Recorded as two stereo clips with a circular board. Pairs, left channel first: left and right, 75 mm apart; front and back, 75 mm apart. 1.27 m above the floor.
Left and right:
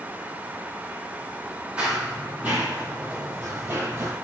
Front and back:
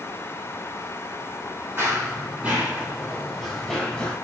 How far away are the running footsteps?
About 1.5 m.